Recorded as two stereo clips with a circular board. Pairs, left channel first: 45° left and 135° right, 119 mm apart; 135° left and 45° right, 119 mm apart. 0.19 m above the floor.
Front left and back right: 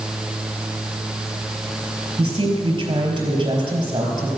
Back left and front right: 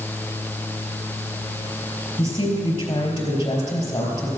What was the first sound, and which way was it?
A woman speaking, 175° left.